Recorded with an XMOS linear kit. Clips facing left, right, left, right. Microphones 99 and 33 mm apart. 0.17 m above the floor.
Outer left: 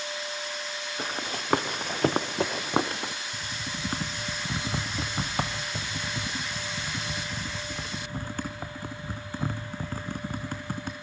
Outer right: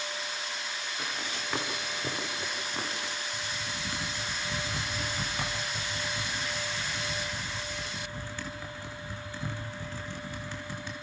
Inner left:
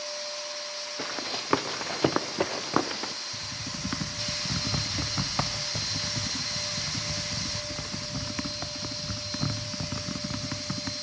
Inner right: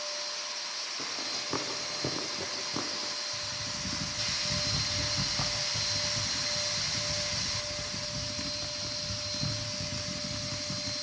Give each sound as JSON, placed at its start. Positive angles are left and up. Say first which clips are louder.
{"t": 1.0, "sound": "running footsteps", "louder": "outer left 5 dB, inner left 5 dB", "side_deg": 40, "distance_m": 3.0}
{"t": 3.3, "sound": "typing on a keyboard", "louder": "outer left 1 dB, even", "side_deg": 50, "distance_m": 3.0}